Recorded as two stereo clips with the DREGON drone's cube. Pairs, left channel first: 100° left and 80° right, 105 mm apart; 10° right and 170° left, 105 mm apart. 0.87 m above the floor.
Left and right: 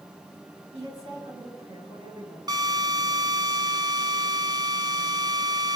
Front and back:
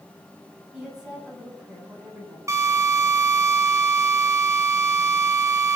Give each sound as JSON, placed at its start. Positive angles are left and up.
{"t": 0.7, "sound": "a woman speaking", "azimuth_deg": -105, "distance_m": 9.5}
{"t": 2.5, "sound": "a drill", "azimuth_deg": -130, "distance_m": 2.5}